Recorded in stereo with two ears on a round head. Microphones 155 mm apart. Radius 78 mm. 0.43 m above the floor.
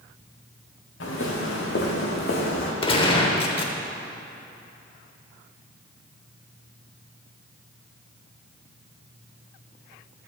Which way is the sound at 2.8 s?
30° left (ahead or behind).